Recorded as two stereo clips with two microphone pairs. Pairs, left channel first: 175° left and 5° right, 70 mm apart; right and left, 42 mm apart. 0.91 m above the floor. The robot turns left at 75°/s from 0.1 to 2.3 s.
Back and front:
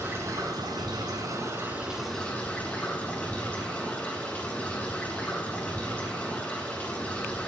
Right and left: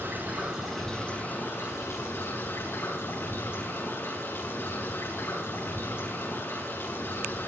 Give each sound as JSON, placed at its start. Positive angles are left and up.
{"t": 0.0, "sound": "running water", "azimuth_deg": 55, "distance_m": 9.5}